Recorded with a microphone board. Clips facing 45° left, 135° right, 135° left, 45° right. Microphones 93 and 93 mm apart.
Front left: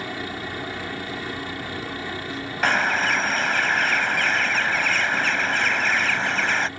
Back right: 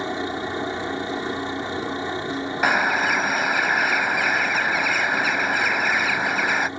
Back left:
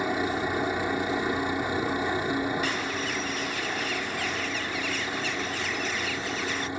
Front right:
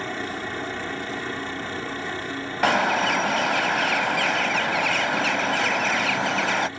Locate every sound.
0.0 s a helicopter: 165° right; by 6.8 s 170° right
2.6 s a bird: 55° right